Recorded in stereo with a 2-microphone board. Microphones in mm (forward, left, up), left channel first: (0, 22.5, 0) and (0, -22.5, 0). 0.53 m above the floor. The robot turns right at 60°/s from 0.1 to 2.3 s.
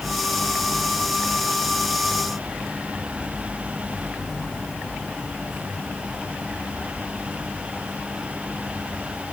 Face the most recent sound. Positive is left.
No sound to turn to.